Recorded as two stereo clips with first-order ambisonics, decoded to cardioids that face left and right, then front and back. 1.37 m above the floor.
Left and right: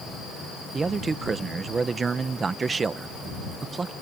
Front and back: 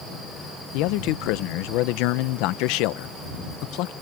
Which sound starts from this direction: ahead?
A man speaking, at 0.7 s.